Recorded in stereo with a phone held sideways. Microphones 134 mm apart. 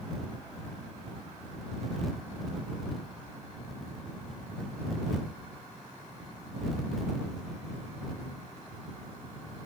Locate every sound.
Only background noise.